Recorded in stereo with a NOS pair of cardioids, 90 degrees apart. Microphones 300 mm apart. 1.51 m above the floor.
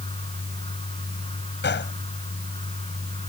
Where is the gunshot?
35° left.